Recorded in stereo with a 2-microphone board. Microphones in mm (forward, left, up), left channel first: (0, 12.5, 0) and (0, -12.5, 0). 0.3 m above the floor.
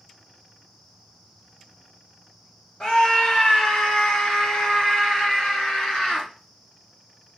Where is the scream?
40° left (ahead or behind), 1.4 m; by 6.3 s 50° left (ahead or behind), 3.5 m.